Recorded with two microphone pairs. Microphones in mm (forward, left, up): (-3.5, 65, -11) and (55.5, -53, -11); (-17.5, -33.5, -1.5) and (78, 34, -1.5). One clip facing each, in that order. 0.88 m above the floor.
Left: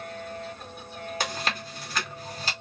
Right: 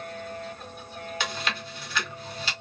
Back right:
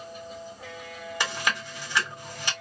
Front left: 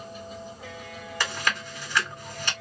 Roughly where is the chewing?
Behind left.